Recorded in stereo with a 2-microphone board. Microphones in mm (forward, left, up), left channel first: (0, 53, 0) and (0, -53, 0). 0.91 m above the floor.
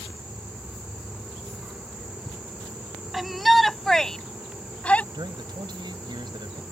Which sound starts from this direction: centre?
A shout, at 3.1 s.